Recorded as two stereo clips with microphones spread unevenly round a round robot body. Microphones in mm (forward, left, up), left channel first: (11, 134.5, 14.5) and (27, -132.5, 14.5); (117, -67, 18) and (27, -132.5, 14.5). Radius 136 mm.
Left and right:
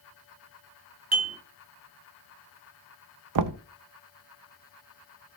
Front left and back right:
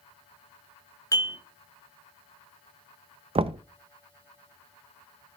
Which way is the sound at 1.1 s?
20° right.